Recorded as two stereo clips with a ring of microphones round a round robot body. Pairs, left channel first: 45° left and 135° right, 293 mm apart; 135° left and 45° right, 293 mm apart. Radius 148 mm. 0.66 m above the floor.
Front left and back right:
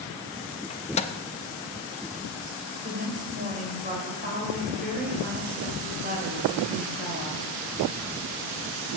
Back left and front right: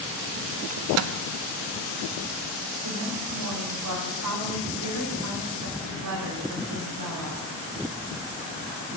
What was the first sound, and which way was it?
A microwave, 20° right.